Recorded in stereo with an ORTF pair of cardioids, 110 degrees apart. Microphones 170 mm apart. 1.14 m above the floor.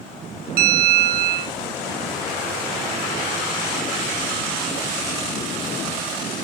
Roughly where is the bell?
Ahead right.